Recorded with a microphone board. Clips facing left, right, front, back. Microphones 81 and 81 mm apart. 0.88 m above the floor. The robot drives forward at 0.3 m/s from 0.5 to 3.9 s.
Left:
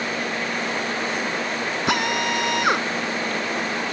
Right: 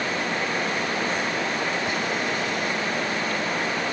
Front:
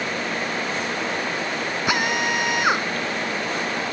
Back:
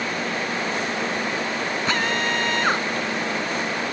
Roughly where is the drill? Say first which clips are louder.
Left 4 dB, front 2 dB; left.